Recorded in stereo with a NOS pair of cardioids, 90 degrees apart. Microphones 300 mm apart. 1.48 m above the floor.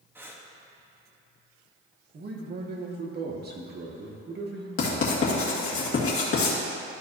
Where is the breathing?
10° right, 1.0 m.